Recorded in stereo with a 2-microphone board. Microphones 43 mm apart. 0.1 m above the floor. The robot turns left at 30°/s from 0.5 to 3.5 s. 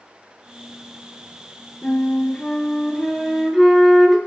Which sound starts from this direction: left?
A flute, at 1.8 s.